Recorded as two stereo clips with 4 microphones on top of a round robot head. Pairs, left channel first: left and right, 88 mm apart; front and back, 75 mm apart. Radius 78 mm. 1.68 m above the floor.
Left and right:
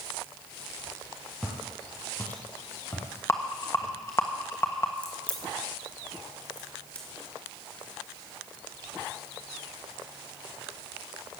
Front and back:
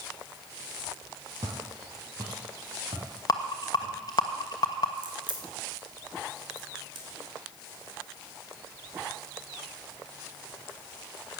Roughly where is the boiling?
No boiling in this recording.